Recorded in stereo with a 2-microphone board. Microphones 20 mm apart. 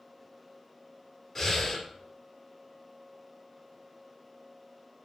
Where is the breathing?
10° left (ahead or behind), 2 m.